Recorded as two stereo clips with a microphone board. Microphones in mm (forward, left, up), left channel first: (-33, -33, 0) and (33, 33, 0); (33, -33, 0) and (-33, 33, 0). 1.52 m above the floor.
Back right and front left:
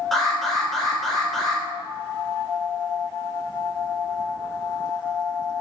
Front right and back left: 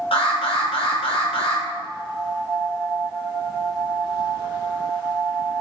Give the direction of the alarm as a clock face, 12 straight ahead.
2 o'clock.